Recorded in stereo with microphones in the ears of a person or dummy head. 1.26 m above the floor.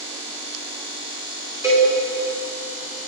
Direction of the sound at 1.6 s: 15° right (ahead or behind).